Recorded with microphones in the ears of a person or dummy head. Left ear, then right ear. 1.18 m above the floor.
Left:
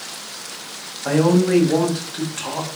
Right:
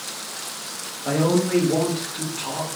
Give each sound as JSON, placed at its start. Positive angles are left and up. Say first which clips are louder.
{"t": 1.1, "sound": "a man speaking", "louder": "left 4 dB", "side_deg": 40, "distance_m": 0.8}